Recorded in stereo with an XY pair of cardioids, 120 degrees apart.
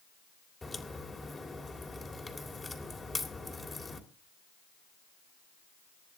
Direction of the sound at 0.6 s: 15° left.